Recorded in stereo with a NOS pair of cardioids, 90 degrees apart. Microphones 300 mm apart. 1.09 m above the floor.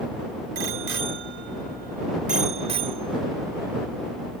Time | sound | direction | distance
0.6 | a bicycle bell | 50° right | ?